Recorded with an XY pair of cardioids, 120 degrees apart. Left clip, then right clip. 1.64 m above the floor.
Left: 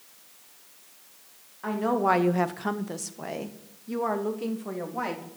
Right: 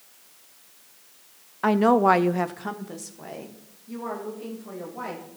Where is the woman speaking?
70° right, 0.7 m; by 5.2 s 45° left, 3 m.